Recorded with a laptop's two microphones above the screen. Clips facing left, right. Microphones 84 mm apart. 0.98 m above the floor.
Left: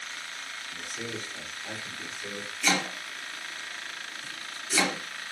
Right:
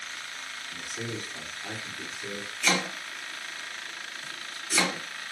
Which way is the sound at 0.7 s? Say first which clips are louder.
Right 1 dB; 30° right (ahead or behind).